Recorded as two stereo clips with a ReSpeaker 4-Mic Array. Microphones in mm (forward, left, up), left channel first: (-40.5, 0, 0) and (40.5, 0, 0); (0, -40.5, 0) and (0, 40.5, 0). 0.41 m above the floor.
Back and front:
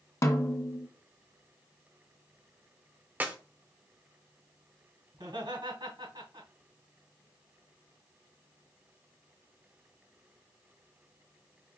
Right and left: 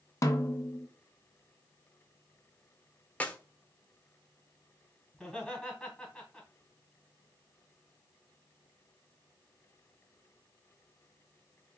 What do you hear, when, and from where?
0.2 s a snare drum: 135° right, 0.6 m
3.2 s a clap: 40° right, 0.6 m
5.1 s laughter: 5° right, 2.5 m